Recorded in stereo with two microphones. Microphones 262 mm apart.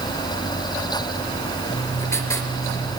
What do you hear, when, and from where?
1.7 s writing: 10° left (ahead or behind), 3.5 m